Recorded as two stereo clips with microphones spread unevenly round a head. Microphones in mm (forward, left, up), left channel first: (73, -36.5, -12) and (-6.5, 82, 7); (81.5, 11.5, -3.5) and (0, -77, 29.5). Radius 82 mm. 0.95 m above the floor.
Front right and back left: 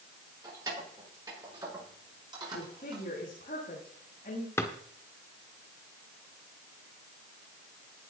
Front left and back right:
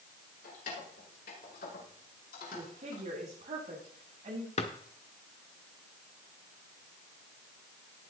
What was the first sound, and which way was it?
Keys jangling, 60° left.